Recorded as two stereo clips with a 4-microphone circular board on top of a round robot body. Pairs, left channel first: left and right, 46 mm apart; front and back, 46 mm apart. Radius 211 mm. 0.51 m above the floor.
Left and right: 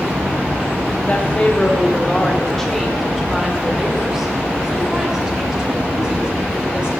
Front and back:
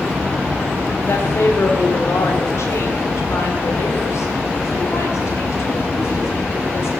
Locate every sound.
1.0 s a woman speaking: 30° left, 2 m; by 6.9 s 20° right, 4.5 m